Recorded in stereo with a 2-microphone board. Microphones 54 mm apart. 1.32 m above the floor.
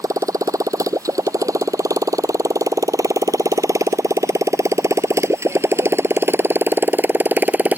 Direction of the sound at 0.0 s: 85° right.